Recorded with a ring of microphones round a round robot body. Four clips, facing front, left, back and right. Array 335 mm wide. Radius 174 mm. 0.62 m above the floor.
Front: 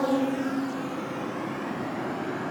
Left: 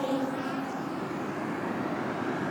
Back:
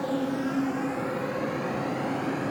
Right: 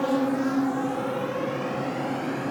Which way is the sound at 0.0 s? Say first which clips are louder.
Right 6 dB, front 3 dB; 45° right.